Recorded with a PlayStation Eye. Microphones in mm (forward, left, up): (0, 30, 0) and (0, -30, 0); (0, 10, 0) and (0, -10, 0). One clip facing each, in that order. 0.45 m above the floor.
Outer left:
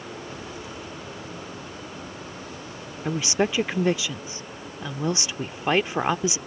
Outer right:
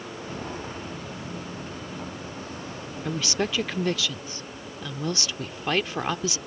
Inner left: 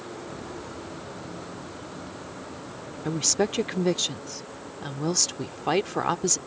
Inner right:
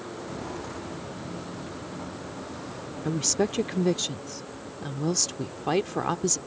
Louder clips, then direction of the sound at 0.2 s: Outer right 2 dB, inner right 2 dB; 45° right (ahead or behind).